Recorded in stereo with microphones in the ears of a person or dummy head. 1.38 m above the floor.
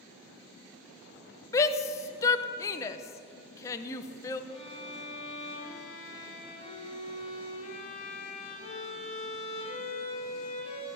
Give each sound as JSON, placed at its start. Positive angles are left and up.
{"t": 1.5, "sound": "a shout", "side_deg": 15, "distance_m": 0.8}
{"t": 4.5, "sound": "a violin", "side_deg": 35, "distance_m": 3.5}